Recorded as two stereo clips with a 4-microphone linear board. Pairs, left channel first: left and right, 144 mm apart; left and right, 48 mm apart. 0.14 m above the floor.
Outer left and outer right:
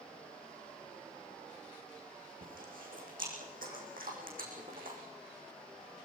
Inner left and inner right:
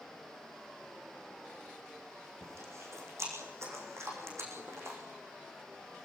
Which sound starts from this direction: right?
Chewing, at 2.4 s.